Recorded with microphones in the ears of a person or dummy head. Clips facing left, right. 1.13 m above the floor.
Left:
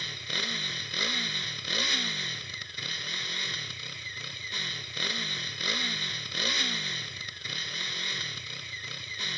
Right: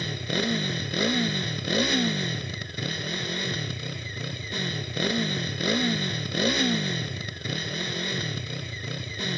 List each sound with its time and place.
0.0 s a motorcycle: 50° right (ahead or behind)